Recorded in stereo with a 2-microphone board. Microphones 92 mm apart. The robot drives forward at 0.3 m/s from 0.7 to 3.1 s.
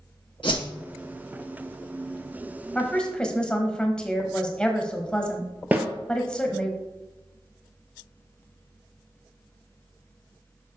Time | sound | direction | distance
0.4 | a whoosh | 65° left (ahead or behind) | 1.6 m
2.8 | a woman speaking | 10° left (ahead or behind) | 1.0 m
5.7 | a snare drum | 20° right (ahead or behind) | 1.0 m